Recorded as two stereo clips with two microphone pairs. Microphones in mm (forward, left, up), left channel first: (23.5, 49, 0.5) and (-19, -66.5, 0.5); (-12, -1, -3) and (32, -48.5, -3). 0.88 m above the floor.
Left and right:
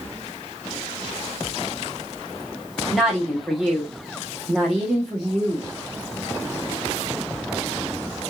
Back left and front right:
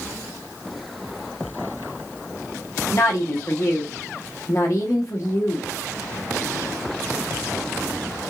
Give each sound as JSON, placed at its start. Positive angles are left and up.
{"t": 2.9, "sound": "a woman speaking", "azimuth_deg": 155, "distance_m": 0.9}